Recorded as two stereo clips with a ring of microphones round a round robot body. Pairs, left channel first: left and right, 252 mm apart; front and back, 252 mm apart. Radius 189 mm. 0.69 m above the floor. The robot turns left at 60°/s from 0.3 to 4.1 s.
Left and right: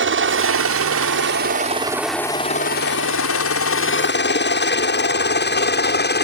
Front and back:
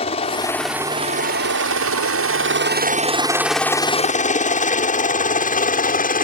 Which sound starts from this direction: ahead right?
A helicopter, at 0.0 s.